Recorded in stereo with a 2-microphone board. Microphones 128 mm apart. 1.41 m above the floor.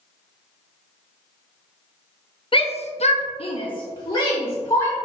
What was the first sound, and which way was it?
A shout, 40° left (ahead or behind).